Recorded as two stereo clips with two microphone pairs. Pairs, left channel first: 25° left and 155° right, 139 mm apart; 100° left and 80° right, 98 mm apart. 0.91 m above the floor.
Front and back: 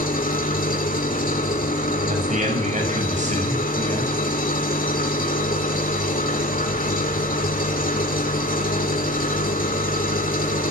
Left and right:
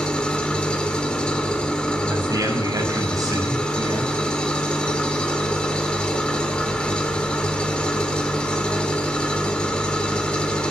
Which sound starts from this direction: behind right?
A man speaking, at 2.1 s.